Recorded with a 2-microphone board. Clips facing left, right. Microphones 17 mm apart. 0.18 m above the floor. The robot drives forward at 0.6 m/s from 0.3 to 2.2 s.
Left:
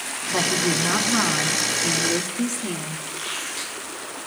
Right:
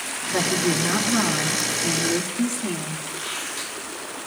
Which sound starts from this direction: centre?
A squeak, at 3.1 s.